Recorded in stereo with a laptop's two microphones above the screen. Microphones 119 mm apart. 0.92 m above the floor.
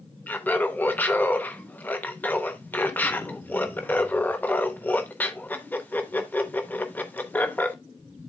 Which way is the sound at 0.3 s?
15° left (ahead or behind).